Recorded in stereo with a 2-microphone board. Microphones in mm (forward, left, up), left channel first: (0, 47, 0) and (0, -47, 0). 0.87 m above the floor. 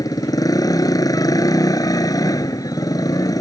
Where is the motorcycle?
45° left (ahead or behind).